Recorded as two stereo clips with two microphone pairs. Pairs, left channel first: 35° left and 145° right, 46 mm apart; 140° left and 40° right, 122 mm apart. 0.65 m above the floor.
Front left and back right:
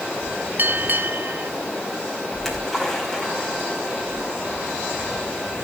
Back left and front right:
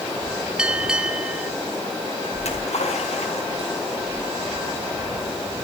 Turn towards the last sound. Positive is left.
turn(degrees=120)